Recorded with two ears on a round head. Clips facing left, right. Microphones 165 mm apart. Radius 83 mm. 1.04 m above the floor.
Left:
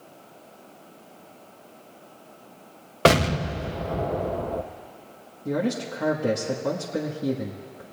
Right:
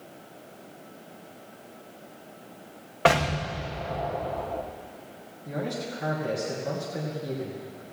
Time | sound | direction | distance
3.0 | an explosion | 45° left (ahead or behind) | 0.6 m
5.5 | a man speaking | 70° left (ahead or behind) | 1.2 m